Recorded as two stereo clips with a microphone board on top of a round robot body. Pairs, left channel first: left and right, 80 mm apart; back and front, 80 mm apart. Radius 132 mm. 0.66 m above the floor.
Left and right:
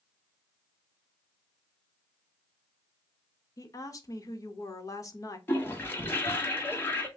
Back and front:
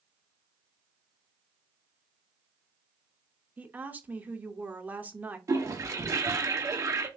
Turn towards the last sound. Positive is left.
turn(degrees=35)